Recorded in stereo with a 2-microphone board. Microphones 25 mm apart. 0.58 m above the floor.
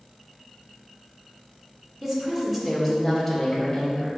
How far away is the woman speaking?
About 1.6 m.